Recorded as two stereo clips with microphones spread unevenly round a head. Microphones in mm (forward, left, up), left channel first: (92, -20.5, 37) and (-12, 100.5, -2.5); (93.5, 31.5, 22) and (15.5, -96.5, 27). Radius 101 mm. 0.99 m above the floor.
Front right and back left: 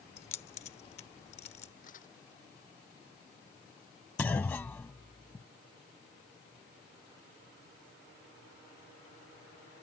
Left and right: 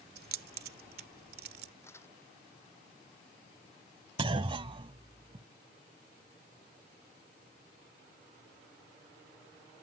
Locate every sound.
0.2 s keys jangling: 110° right
1.8 s crumpling: 15° right
4.2 s a clunk: 100° right